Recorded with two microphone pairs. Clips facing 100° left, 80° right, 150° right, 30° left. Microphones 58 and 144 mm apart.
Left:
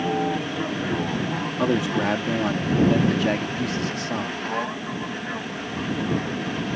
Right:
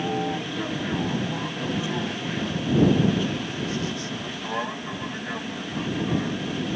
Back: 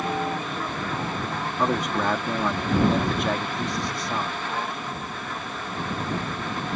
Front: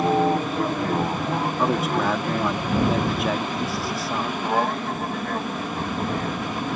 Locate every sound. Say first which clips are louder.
0.0 s an aircraft: left 3 dB, front 7 dB; 30° left; by 6.8 s 15° left
1.6 s a man speaking: left 8 dB, even; 115° left